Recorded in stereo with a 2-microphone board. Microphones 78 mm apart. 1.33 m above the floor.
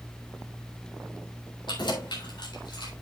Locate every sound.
1.7 s keys jangling: 75° left (ahead or behind), 3.5 m